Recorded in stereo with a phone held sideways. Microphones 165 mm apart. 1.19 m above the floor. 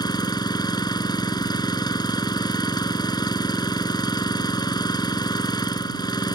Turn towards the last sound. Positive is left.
turn(degrees=25)  # may be behind; listen again after turning